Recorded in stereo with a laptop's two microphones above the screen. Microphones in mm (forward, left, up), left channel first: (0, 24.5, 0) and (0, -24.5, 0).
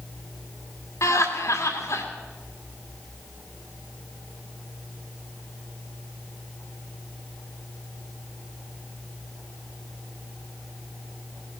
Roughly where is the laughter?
Left.